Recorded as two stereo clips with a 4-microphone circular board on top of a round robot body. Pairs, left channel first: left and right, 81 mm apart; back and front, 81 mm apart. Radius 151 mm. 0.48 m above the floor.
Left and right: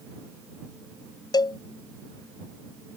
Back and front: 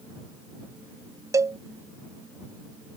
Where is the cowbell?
55° left.